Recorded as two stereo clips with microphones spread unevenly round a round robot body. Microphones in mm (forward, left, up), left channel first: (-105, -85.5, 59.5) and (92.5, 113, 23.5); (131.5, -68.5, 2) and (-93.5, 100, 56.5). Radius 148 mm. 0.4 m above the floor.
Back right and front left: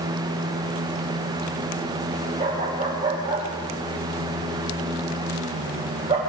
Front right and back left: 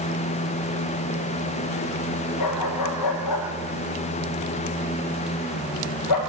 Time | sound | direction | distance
2.4 | a dog barking | 30° right | 10 m